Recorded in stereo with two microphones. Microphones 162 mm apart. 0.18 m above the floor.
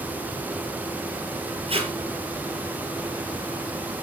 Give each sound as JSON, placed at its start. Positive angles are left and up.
{"t": 1.7, "sound": "tape being pulled", "side_deg": -35, "distance_m": 4.0}